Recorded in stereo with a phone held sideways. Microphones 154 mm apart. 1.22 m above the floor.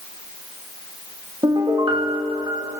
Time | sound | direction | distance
1.4 | a piano | 30° right (ahead or behind) | 1.8 m